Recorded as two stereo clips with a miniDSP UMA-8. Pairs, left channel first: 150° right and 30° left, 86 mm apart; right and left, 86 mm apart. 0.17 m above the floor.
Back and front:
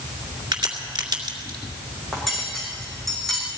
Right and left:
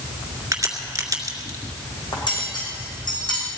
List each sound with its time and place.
0.5 s a crack: 50° left, 2 m
2.1 s cutlery clinking: 60° right, 5 m